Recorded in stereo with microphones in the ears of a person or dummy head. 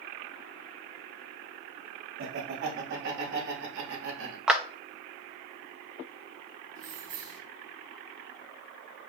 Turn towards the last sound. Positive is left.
turn(degrees=-40)  # may be behind; listen again after turning